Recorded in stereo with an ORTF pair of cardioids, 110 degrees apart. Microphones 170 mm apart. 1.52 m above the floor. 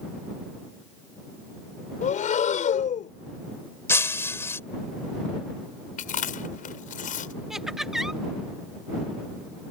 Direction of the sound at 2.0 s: 50° left.